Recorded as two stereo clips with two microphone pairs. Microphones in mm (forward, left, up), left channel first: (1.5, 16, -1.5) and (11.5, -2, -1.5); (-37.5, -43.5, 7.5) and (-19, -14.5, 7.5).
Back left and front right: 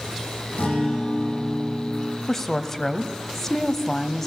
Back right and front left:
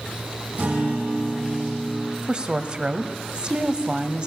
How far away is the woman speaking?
About 1.2 m.